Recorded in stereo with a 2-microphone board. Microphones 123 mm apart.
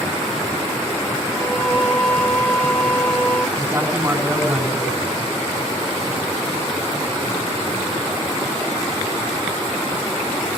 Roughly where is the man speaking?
Right.